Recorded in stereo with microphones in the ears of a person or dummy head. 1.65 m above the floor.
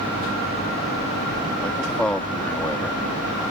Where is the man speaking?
5° left (ahead or behind).